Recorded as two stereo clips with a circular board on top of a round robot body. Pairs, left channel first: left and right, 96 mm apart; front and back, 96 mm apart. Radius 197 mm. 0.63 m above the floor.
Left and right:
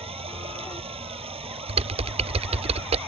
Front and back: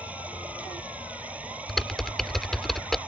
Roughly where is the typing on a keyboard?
Right.